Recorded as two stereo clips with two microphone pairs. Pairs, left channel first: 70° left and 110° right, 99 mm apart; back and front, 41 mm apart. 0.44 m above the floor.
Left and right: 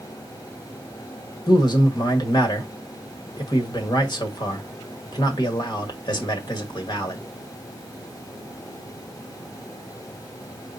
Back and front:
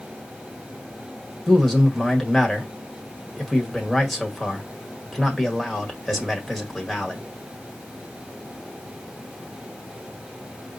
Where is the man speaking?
95° left, 1.4 m.